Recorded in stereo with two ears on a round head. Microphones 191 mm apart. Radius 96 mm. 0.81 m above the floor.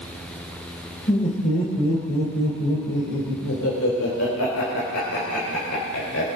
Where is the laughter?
40° left (ahead or behind), 3.5 m; by 6.4 s 80° left, 3.5 m.